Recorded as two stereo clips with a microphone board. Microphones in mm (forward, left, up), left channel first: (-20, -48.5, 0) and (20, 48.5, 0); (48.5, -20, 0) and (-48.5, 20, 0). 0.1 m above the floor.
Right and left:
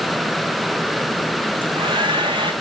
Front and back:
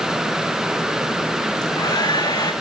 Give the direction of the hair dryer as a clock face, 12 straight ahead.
11 o'clock.